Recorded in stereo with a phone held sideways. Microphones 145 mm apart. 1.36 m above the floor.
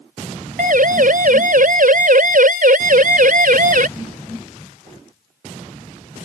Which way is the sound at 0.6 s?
70° right (ahead or behind).